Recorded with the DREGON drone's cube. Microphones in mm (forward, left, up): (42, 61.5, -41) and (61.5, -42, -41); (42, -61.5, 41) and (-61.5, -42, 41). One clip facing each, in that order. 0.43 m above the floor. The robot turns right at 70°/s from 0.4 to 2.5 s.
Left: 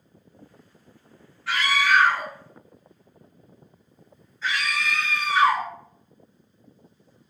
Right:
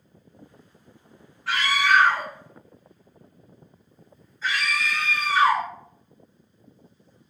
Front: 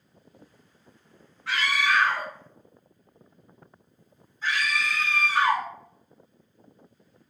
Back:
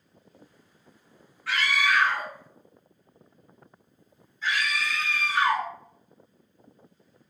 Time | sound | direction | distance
1.5 | a scream | 65° right | 0.9 m